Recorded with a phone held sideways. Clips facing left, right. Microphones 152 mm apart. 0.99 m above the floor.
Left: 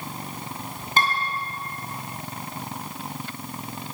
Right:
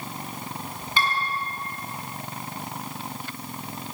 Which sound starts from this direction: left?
Dishes clattering, at 1.0 s.